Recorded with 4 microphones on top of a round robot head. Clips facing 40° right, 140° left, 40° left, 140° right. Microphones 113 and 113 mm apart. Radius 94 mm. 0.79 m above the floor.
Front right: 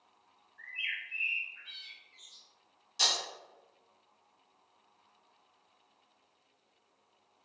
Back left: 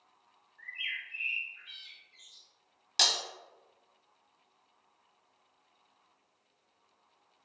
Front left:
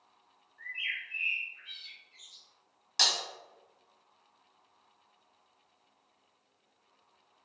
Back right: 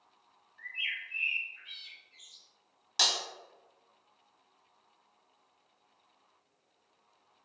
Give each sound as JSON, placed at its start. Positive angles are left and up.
{"t": 0.6, "sound": "a bird", "azimuth_deg": -25, "distance_m": 1.7}
{"t": 3.0, "sound": "breaking glass", "azimuth_deg": 140, "distance_m": 0.6}